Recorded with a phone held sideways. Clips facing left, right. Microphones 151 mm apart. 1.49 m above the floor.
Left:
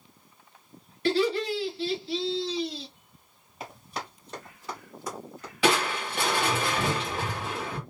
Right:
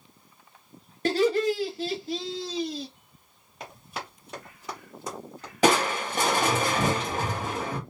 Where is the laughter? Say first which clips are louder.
Right 2 dB; 50° right (ahead or behind), 0.8 m.